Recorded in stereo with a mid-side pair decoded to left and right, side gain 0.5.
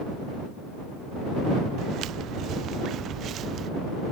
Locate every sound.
1.8 s footsteps: 70° right; by 3.7 s 55° right